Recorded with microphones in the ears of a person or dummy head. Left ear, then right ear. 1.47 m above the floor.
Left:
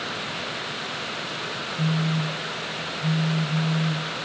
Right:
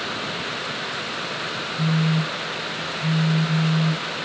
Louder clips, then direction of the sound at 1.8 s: Right 3 dB; 70° right (ahead or behind).